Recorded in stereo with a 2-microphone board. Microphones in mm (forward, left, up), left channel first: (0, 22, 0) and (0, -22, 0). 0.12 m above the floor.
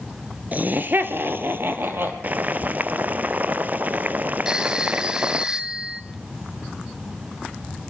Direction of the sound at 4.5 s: 15° right (ahead or behind).